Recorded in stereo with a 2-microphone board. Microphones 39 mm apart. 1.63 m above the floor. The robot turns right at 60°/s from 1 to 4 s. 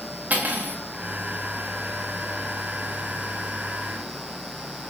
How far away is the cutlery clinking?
About 1.6 m.